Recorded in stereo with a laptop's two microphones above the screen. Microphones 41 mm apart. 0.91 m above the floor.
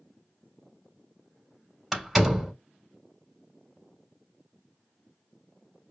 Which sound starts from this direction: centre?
A door slam, at 1.9 s.